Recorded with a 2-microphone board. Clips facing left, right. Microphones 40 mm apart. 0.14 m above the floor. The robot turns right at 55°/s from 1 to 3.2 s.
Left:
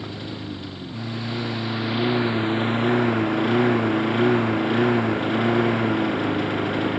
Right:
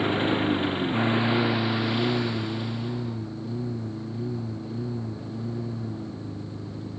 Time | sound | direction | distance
0.0 | a lawn mower | 45° right | ?